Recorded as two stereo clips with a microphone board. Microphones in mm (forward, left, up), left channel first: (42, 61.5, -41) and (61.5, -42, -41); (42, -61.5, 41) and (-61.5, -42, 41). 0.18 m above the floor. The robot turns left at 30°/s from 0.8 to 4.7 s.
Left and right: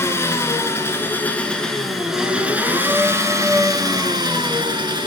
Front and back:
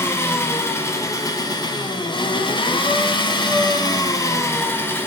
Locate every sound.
0.0 s an engine running: 45° left, 0.9 m; by 5.1 s 75° right, 0.9 m